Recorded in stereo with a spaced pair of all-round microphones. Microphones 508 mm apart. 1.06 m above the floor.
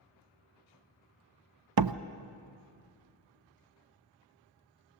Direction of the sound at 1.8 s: 45° right (ahead or behind).